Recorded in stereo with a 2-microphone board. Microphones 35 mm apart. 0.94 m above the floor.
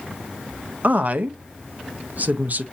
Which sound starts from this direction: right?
A woman speaking, at 0.8 s.